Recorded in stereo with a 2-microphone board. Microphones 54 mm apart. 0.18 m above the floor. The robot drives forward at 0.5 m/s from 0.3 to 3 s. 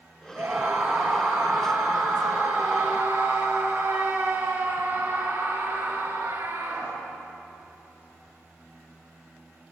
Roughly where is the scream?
Right.